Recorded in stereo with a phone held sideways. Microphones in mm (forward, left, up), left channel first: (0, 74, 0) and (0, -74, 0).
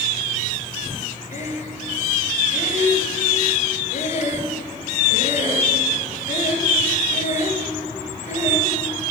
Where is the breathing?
55° left (ahead or behind), 2 m.